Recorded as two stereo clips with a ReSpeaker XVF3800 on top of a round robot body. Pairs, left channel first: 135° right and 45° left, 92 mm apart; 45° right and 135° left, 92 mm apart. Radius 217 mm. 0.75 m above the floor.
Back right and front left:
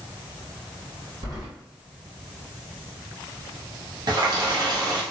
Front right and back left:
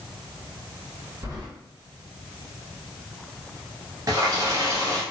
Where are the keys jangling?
80° left, 1.6 m.